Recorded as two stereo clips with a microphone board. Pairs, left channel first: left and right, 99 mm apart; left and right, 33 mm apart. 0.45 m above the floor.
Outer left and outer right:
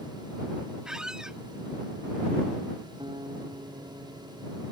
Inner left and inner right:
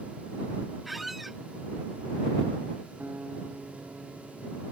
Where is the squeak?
5° right (ahead or behind).